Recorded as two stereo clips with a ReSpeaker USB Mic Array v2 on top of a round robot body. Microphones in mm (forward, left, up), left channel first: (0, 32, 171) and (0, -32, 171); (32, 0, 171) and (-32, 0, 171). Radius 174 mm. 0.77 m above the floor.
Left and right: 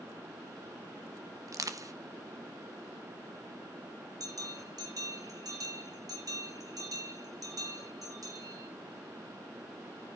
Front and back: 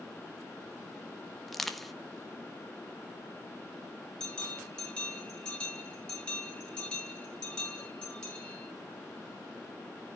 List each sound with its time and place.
1.5 s crushing: 90° right, 1.6 m
4.2 s a bell: 75° right, 4 m